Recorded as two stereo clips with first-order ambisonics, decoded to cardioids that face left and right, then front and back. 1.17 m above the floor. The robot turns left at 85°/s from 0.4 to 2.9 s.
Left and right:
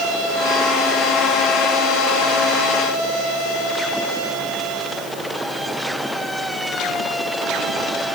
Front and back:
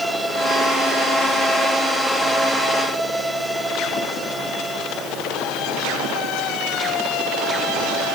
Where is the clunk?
I don't hear a clunk.